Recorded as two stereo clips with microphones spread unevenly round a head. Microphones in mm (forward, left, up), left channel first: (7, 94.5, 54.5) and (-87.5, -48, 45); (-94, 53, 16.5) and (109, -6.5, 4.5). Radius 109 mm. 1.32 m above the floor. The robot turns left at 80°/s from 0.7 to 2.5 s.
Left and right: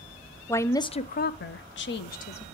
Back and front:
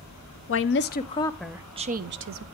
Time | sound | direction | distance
0.5 | a woman speaking | 130° left | 0.6 m